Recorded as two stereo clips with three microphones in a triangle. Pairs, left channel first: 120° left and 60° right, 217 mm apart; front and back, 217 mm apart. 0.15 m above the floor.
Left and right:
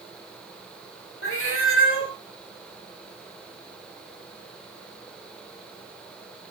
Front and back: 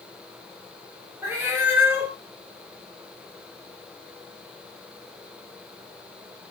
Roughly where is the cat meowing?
Left.